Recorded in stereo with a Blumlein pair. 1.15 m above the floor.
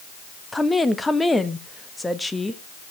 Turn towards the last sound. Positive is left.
turn(degrees=5)